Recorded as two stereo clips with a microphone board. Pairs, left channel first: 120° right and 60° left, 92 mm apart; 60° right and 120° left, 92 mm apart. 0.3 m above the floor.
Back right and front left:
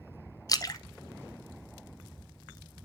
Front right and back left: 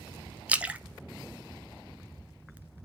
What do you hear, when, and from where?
0.5 s a splash: 165° right, 0.5 m